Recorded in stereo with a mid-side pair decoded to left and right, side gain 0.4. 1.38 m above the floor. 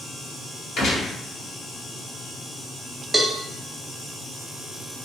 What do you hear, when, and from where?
0.8 s a gunshot: 65° left, 1.1 m
3.1 s a cowbell: 20° right, 0.6 m